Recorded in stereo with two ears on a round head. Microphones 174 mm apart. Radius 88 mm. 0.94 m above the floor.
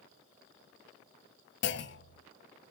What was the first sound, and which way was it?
A clunk, 60° left (ahead or behind).